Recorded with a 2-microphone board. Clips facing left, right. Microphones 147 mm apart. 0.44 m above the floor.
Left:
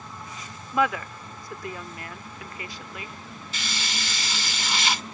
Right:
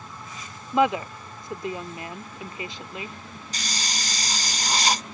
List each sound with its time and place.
0.7 s a woman speaking: 25° right (ahead or behind)
3.5 s a hiss: 40° right (ahead or behind)